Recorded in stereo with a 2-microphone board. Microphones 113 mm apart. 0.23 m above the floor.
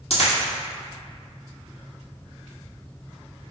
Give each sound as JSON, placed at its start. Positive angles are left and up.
{"t": 0.1, "sound": "a dropped coin", "side_deg": 60, "distance_m": 1.4}